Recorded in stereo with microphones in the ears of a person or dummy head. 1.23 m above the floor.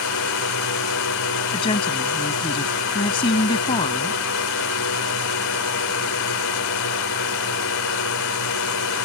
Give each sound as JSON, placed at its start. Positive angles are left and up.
{"t": 0.0, "sound": "a drone", "side_deg": 75}
{"t": 1.5, "sound": "a woman speaking", "side_deg": 30}